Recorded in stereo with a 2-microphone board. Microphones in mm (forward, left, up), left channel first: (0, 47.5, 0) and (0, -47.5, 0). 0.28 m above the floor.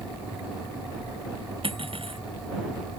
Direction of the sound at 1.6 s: 65° right (ahead or behind).